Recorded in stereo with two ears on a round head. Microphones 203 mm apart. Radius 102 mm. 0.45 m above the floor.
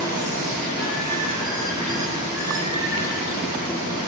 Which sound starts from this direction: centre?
Running water, at 0.0 s.